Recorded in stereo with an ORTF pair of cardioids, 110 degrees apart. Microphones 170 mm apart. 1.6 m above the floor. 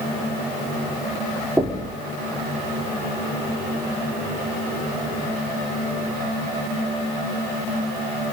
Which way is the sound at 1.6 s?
5° right.